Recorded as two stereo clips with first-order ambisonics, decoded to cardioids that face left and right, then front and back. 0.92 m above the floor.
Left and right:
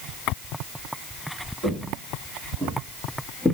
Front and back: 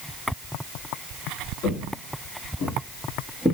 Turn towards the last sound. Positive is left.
turn(degrees=70)